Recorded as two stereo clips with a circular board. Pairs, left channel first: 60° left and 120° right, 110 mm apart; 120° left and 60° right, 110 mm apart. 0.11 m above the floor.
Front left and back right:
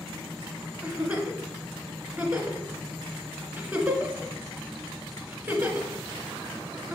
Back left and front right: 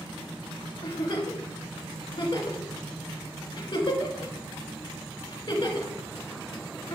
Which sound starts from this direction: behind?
A giggle, at 0.8 s.